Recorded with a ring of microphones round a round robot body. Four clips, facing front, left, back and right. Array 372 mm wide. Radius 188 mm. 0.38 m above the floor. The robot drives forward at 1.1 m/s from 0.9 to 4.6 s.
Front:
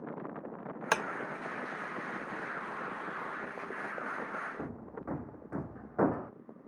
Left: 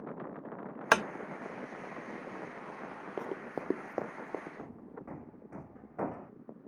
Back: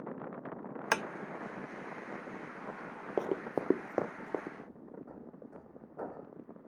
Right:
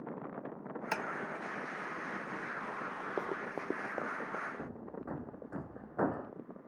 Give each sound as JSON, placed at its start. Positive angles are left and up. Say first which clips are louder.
{"t": 0.9, "sound": "tapping", "louder": "left 11 dB, front 1 dB", "azimuth_deg": 85}
{"t": 3.2, "sound": "running footsteps", "louder": "left 1 dB, back 6 dB", "azimuth_deg": -170}
{"t": 4.6, "sound": "hammering", "louder": "right 3 dB, front 6 dB", "azimuth_deg": -10}